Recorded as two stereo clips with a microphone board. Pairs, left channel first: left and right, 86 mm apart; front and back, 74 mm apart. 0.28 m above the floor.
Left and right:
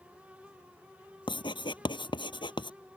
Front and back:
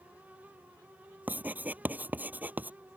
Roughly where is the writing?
Behind left.